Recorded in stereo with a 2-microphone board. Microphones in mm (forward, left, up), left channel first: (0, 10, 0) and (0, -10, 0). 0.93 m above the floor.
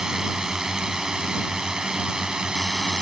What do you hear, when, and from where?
0.0 s a drone: 30° right (ahead or behind); by 3.0 s 40° right (ahead or behind)